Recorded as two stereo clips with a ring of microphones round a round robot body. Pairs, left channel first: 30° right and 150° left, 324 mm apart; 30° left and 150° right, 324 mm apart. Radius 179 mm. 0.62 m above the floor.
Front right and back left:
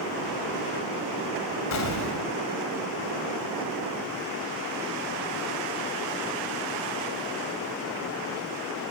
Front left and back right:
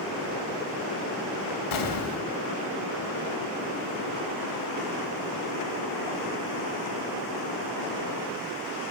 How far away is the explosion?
About 4 m.